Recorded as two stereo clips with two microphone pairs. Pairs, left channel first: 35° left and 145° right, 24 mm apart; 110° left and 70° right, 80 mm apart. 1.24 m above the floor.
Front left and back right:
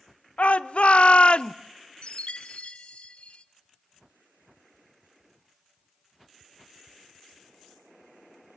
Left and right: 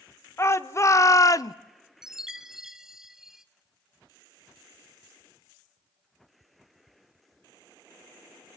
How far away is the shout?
About 1.1 m.